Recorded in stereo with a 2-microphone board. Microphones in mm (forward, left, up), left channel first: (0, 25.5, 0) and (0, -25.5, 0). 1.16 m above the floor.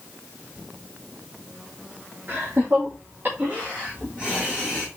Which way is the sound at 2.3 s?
50° right (ahead or behind).